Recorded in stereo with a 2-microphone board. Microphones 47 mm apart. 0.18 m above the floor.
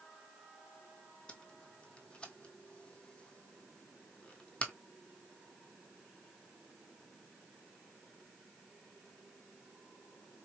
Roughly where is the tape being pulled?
Left.